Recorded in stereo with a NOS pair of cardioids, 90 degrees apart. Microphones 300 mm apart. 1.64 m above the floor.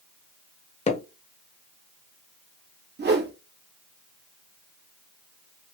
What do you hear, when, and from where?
0.9 s hammering: 25° left, 1.1 m
3.0 s a whoosh: 35° right, 1.2 m